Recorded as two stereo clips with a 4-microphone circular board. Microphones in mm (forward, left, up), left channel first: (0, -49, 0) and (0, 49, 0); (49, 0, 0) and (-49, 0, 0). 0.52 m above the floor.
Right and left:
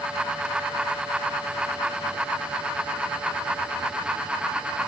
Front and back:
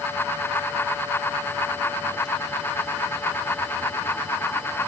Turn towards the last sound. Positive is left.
No sound to turn to.